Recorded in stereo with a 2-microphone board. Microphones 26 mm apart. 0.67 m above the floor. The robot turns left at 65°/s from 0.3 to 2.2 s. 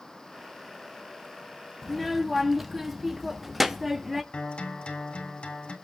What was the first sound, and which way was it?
A child speaking, centre (ahead or behind).